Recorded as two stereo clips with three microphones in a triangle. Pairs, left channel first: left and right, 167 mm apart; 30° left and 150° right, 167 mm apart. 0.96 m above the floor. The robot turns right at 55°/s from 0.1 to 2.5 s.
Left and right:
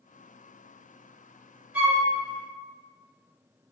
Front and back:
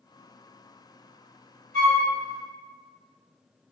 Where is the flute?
170° right, 1.3 m; by 2.0 s 150° right, 1.3 m.